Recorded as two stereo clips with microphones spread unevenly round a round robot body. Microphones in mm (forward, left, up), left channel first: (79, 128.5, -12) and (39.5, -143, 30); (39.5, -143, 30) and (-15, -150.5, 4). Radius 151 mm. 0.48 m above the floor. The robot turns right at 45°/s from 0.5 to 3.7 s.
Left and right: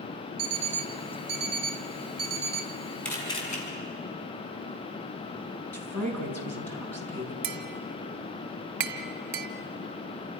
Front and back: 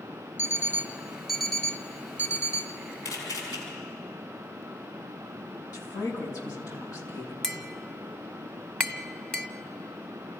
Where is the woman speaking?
Straight ahead, 5 m.